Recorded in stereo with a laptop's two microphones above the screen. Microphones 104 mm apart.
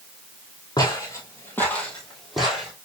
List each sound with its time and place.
0.8 s footsteps: 40° left (ahead or behind), 1.6 m; by 2.7 s 10° right (ahead or behind), 2.0 m